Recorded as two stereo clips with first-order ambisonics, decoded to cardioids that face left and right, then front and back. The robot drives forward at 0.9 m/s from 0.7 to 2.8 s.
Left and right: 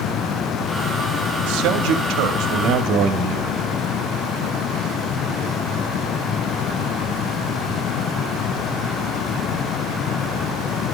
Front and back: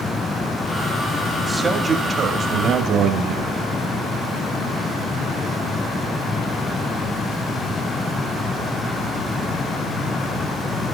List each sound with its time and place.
1.4 s a man speaking: 95° right, 2 m; by 3.6 s 125° right, 2.5 m